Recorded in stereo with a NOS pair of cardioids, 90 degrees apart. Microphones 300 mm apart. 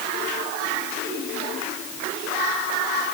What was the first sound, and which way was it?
Only background noise.